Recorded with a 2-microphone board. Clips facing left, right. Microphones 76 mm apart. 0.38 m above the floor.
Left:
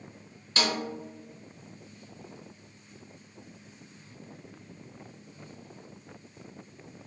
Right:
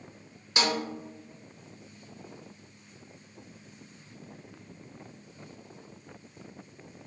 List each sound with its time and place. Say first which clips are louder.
0.6 s a snare drum: right 1 dB; 15° right (ahead or behind), 0.9 m